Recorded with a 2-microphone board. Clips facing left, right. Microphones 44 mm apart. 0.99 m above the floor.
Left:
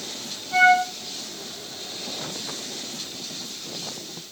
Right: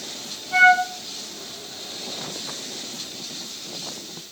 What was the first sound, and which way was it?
A flute, 15° right (ahead or behind).